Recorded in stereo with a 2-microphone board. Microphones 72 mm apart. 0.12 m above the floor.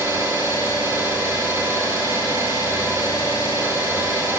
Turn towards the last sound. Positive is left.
turn(degrees=-35)  # may be behind; listen again after turning